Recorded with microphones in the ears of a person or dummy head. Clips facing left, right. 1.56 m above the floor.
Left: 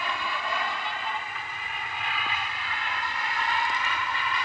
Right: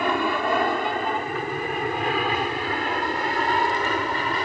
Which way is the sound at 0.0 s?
50° right (ahead or behind).